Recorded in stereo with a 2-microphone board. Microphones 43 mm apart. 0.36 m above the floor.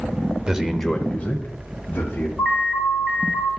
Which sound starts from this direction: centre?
An alarm, at 2.4 s.